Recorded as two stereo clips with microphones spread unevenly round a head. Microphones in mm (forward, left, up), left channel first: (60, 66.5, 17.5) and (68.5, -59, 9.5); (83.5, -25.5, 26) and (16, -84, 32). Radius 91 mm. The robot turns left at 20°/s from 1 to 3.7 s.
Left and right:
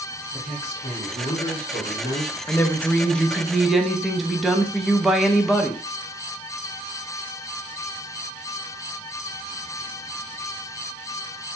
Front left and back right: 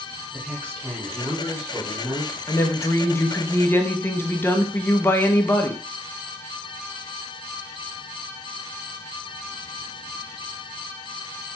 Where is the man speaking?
145° left, 0.9 m; by 2.4 s 120° left, 0.9 m.